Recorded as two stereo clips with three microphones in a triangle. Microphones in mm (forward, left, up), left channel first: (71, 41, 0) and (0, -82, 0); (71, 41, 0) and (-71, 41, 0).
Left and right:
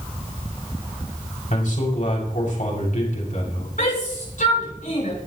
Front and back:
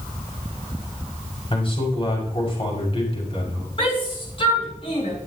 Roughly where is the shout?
Ahead left.